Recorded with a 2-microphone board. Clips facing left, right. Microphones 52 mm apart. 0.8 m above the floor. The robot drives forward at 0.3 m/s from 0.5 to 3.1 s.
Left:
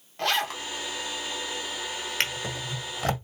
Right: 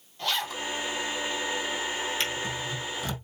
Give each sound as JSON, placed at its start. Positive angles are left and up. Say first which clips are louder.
{"t": 0.2, "sound": "a zipper", "louder": "left 4 dB", "side_deg": 75, "distance_m": 1.3}
{"t": 2.2, "sound": "a drawer", "louder": "even", "side_deg": 80, "distance_m": 1.4}